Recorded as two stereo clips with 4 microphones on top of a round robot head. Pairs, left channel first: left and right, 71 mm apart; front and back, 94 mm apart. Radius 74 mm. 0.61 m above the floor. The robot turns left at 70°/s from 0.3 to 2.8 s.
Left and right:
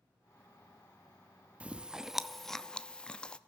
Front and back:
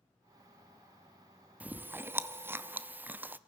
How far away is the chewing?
About 0.7 m.